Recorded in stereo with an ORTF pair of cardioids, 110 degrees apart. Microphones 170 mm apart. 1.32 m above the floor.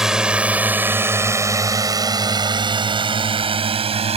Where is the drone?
5° right; by 4.2 s 35° right.